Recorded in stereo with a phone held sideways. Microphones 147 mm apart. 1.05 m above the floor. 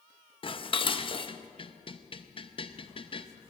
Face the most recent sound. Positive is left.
turn(degrees=35)  # may be behind; listen again after turning